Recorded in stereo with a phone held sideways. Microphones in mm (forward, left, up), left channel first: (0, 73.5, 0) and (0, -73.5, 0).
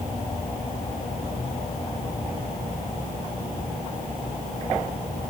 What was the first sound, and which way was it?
Only background noise.